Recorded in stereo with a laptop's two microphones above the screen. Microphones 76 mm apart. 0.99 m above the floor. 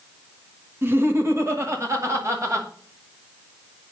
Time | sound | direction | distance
0.8 | laughter | 30° right (ahead or behind) | 1.4 m